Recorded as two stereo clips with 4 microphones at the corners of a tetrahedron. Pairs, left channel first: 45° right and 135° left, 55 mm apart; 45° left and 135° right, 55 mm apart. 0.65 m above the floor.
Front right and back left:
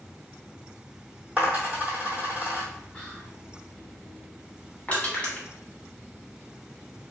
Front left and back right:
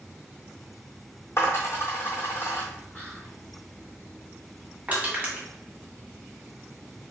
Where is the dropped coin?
75° left, 1.3 m.